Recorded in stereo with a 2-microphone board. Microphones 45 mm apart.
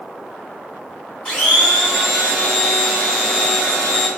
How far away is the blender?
About 1.6 m.